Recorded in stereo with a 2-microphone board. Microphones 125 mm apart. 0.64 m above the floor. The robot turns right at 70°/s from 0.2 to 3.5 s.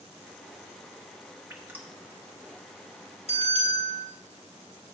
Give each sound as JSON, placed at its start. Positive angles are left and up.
{"t": 1.5, "sound": "dripping", "side_deg": -20, "distance_m": 1.2}
{"t": 3.3, "sound": "a bell", "side_deg": 60, "distance_m": 3.5}